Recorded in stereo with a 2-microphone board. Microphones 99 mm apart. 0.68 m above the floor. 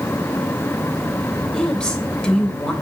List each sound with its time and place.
1.5 s a woman speaking: 10° left (ahead or behind), 2.5 m